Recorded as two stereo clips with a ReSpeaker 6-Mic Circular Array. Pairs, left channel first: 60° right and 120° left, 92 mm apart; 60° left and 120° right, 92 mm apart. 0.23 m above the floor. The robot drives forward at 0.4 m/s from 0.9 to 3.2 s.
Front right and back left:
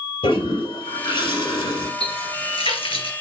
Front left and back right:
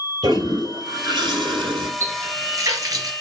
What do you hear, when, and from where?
0.2 s a toilet flushing: 75° right, 3 m; by 1.9 s 85° right, 3 m
2.0 s a running tap: 60° right, 2.5 m; by 3.1 s 75° right, 2 m